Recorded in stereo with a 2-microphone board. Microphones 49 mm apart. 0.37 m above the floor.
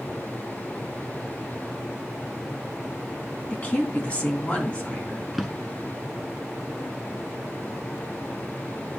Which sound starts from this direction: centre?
A drawer, at 5.3 s.